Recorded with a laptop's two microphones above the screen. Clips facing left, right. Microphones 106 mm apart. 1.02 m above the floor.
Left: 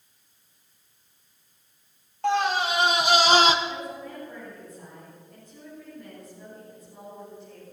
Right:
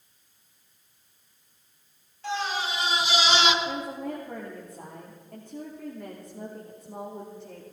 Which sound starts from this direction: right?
A woman speaking, at 3.6 s.